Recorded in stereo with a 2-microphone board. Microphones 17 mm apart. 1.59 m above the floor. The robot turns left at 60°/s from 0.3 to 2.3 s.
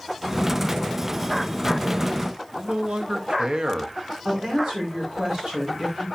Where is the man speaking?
80° right, 1.3 m.